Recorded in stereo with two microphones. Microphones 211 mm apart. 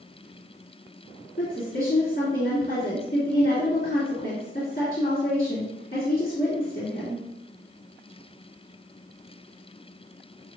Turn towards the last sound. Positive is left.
turn(degrees=50)  # may be behind; listen again after turning